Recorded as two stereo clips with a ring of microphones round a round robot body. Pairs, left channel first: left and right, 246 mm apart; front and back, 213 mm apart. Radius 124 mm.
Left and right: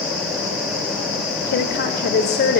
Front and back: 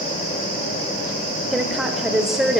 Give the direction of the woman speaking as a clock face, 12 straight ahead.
9 o'clock.